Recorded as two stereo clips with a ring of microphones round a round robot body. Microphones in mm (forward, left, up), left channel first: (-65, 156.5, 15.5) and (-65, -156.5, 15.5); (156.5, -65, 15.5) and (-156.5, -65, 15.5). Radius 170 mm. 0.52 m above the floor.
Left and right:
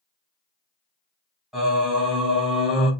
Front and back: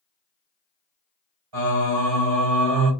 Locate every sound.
1.5 s singing: straight behind, 1.7 m